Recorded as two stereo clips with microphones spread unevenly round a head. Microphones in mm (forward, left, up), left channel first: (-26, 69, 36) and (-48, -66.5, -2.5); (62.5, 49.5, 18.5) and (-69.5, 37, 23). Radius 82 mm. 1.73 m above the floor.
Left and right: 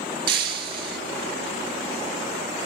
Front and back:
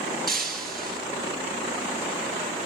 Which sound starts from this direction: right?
Breaking glass, at 0.3 s.